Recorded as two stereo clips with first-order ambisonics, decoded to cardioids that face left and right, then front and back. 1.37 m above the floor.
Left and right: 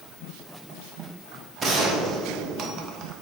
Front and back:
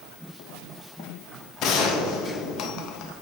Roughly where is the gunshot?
Ahead right.